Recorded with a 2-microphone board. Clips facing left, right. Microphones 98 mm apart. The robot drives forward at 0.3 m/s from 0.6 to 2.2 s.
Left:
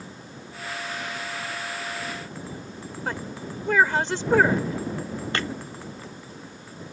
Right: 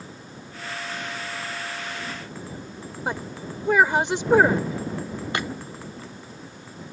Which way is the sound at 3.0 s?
15° right (ahead or behind).